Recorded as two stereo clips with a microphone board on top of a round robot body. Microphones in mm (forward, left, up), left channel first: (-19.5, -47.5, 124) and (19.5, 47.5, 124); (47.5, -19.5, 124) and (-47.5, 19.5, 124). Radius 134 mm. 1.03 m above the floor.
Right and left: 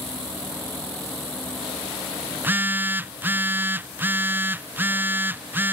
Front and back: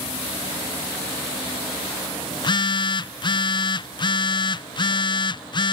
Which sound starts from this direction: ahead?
A phone buzzing, at 2.3 s.